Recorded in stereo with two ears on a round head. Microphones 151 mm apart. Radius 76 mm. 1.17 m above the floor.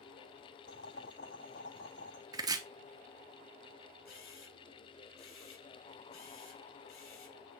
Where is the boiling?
80° left, 5 m.